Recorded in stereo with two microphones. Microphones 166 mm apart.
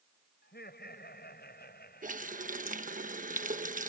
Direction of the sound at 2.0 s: 55° right (ahead or behind).